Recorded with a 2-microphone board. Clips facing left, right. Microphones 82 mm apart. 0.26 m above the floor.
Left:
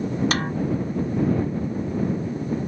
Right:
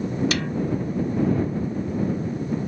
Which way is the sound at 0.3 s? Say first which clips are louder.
Left 1 dB; 40° left (ahead or behind).